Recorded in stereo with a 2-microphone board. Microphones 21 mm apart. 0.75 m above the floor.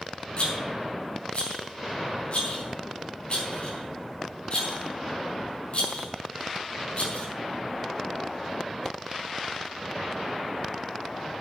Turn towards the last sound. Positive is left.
turn(degrees=55)  # may be behind; listen again after turning